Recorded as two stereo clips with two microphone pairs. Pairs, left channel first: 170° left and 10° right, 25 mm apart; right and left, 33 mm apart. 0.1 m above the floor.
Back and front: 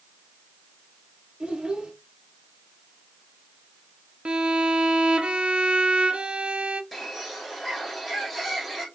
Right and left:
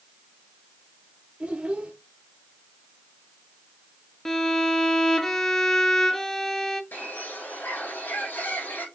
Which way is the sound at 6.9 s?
100° right.